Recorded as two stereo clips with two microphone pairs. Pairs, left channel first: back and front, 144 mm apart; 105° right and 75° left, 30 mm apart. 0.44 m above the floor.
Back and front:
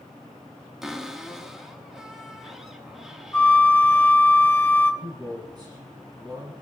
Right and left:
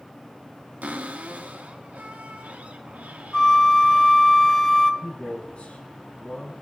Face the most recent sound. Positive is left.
turn(degrees=-60)